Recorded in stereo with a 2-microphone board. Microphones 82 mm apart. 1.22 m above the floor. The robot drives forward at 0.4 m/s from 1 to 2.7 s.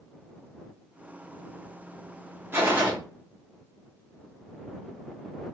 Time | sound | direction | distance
2.5 | a gunshot | 30° right (ahead or behind) | 0.8 m